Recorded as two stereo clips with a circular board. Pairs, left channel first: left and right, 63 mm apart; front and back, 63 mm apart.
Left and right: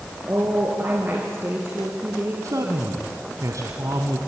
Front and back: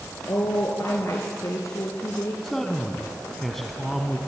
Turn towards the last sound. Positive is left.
turn(degrees=-85)